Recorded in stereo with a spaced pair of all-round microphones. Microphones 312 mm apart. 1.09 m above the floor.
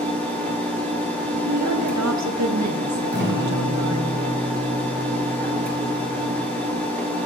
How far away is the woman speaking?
About 0.8 m.